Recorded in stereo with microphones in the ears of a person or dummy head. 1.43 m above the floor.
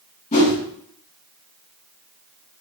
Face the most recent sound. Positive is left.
turn(degrees=40)  # may be behind; listen again after turning